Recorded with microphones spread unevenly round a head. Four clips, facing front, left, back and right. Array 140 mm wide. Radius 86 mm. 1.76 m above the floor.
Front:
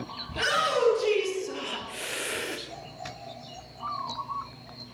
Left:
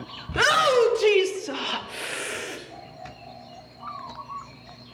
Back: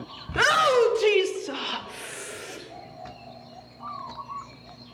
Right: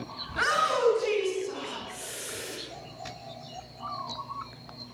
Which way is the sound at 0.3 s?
130° left.